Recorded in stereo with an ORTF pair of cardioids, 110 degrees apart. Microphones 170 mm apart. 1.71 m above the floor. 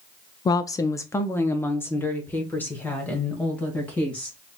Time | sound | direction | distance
0.5 | a woman speaking | 25° left | 0.5 m